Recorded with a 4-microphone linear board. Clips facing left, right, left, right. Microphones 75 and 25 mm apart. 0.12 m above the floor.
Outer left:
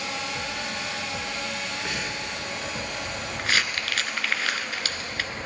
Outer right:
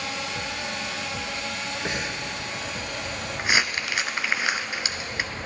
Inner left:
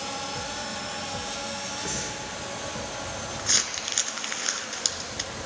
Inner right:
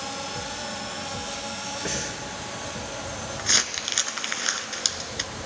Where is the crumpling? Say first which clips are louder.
Outer right 2 dB, inner right 3 dB; 20° right (ahead or behind), 0.6 m.